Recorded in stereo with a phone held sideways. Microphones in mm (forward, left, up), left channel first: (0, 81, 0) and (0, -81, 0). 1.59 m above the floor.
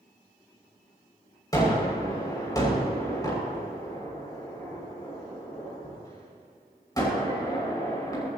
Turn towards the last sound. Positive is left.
turn(degrees=25)  # may be behind; listen again after turning